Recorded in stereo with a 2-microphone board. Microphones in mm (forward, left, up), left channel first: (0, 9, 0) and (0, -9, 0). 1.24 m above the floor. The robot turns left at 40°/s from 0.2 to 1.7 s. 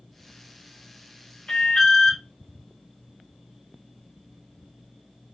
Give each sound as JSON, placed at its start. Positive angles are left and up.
{"t": 1.5, "sound": "an alarm", "side_deg": 60, "distance_m": 1.8}